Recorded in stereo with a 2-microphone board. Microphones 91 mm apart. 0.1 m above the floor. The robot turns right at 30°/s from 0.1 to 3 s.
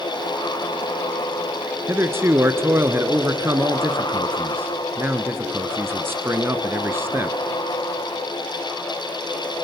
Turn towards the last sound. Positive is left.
turn(degrees=-25)  # may be behind; listen again after turning